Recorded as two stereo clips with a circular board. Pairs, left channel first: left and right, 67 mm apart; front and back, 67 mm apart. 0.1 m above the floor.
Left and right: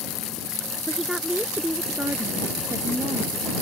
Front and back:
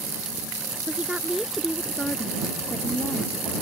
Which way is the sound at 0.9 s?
170° left.